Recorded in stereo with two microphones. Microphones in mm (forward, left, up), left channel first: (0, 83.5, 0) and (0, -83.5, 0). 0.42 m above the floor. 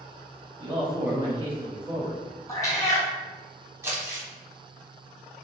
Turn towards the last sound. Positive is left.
turn(degrees=-15)  # may be behind; listen again after turning